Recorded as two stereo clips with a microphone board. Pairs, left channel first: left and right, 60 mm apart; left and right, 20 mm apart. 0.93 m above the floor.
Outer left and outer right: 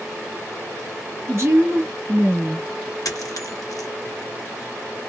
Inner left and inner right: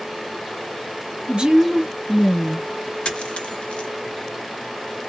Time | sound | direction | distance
1.3 | a woman speaking | 50° right (ahead or behind) | 1.0 m
3.0 | a dropped coin | 75° left (ahead or behind) | 1.1 m